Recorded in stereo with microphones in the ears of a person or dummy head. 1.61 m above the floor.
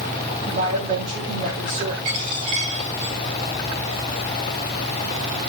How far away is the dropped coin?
About 1.2 m.